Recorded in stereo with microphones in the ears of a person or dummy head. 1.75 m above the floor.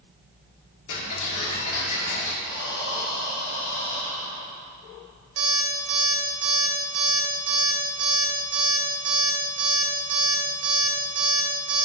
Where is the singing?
I don't hear singing.